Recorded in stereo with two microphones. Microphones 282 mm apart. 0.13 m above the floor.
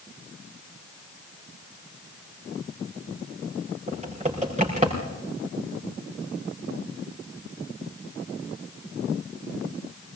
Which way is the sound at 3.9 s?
25° right (ahead or behind).